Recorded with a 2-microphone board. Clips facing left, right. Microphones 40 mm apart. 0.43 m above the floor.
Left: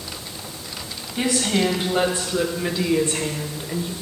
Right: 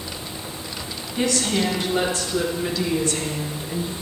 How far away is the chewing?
I don't hear chewing.